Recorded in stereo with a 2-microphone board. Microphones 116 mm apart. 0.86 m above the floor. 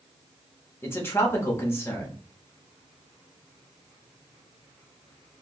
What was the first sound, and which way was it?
A man speaking, 20° left (ahead or behind).